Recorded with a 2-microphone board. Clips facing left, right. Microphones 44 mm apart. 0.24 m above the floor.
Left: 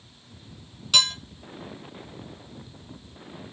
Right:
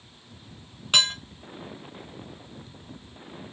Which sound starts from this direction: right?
Dishes clattering, at 0.9 s.